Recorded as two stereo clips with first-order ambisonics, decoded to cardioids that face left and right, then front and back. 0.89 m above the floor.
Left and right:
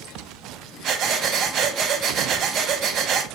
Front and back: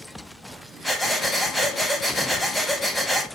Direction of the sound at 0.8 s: 85° right.